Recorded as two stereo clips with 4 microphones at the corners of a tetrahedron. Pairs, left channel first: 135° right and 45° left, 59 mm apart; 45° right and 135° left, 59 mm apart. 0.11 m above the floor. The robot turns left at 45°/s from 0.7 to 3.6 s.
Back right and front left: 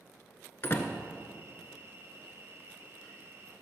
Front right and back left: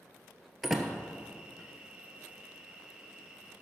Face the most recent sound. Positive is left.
turn(degrees=90)